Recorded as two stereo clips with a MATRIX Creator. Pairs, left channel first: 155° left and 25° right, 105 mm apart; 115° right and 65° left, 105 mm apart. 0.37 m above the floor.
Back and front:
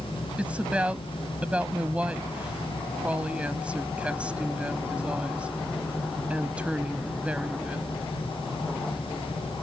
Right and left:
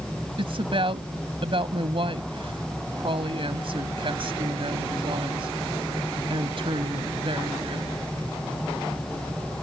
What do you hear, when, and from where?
0.4 s a woman speaking: 55° left